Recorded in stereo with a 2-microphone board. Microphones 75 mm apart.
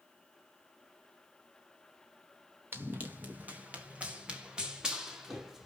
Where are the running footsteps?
30° right (ahead or behind), 3.5 m; by 5.7 s 5° right (ahead or behind), 4.5 m.